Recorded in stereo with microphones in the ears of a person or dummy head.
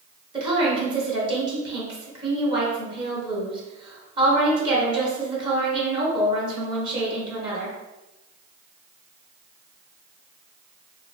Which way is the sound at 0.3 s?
30° right (ahead or behind).